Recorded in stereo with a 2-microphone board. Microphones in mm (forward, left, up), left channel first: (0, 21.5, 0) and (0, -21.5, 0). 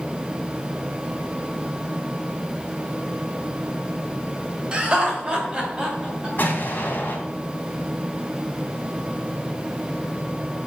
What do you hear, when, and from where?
4.7 s laughter: 25° right (ahead or behind), 2 m; by 6.3 s 20° right (ahead or behind), 3 m
6.4 s an explosion: 50° left (ahead or behind), 3 m